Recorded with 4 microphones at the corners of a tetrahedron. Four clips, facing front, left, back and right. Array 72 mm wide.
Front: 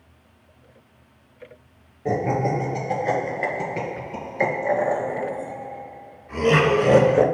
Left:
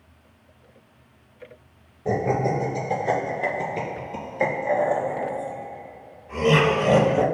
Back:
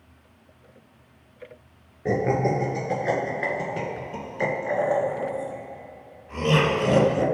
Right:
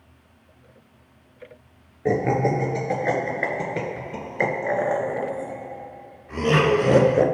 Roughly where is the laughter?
Right.